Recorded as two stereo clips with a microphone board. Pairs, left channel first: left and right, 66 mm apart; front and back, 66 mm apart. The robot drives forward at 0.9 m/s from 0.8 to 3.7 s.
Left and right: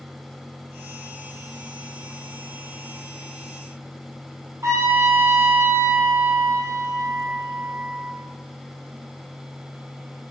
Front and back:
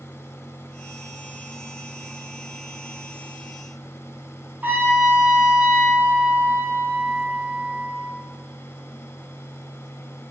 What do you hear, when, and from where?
4.6 s a trumpet: 120° right, 3 m